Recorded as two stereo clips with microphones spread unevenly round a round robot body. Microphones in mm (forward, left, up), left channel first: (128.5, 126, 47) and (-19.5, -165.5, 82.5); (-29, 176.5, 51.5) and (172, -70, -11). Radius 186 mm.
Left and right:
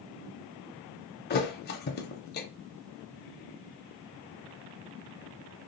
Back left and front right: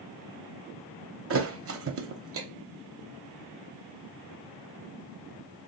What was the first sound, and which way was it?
A thud, straight ahead.